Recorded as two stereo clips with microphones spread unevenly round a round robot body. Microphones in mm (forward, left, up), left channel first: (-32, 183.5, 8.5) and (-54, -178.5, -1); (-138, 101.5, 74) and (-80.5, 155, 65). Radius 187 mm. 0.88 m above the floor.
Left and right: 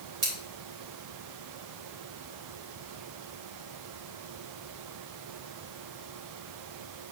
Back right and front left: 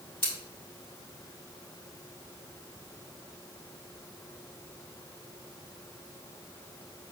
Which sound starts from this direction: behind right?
Scissors, at 0.2 s.